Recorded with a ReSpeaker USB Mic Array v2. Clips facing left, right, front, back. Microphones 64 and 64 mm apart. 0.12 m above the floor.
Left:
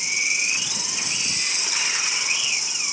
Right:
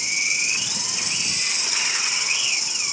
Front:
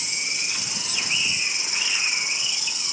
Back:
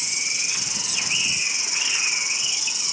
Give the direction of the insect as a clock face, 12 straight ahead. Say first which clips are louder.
Even, even; 11 o'clock.